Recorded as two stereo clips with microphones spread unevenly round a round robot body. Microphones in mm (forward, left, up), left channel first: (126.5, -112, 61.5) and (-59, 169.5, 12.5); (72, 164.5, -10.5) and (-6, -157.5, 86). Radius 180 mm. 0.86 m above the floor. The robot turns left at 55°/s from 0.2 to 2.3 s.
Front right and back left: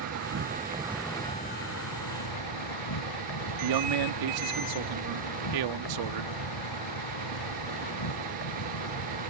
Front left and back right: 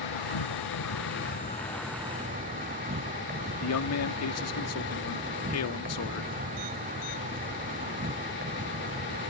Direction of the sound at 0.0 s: 75° left.